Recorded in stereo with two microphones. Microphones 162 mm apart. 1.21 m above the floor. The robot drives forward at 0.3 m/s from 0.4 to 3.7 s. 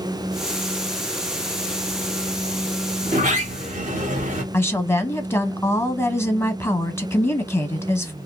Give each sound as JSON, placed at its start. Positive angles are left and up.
{"t": 3.0, "sound": "a sliding door", "side_deg": -55, "distance_m": 0.8}
{"t": 4.5, "sound": "a woman speaking", "side_deg": 15, "distance_m": 0.6}